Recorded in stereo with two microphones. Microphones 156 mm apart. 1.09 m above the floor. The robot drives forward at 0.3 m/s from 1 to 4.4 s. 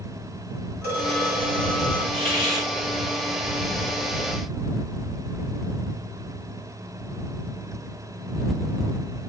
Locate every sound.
0.8 s a phone ringing: 85° right, 1.9 m; by 2.0 s 80° right, 1.9 m
2.1 s a hiss: 35° right (ahead or behind), 2 m; by 2.7 s 30° right (ahead or behind), 2.5 m